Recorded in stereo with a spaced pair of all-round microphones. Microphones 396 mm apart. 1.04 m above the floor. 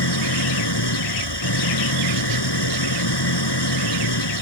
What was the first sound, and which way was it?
An engine running, 90° left.